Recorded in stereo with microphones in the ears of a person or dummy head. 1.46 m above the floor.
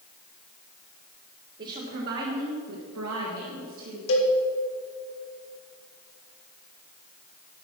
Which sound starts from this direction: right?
A woman speaking, at 1.6 s.